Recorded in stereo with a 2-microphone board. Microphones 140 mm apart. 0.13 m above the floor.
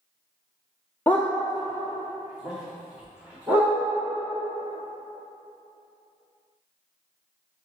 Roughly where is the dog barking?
Centre.